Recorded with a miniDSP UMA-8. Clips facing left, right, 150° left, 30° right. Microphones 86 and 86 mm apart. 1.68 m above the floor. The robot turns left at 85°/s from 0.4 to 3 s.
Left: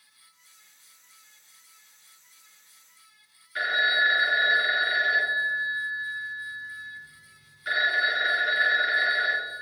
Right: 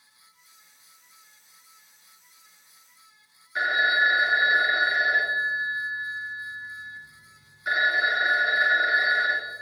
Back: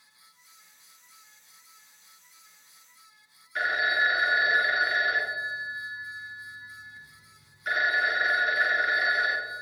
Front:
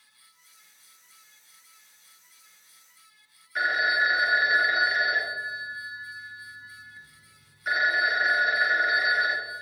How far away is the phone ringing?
About 0.6 m.